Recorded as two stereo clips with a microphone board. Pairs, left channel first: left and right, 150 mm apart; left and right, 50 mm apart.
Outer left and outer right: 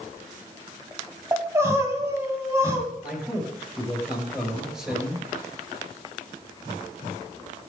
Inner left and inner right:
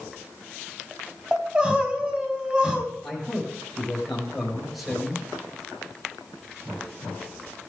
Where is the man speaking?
5° right (ahead or behind), 4 m.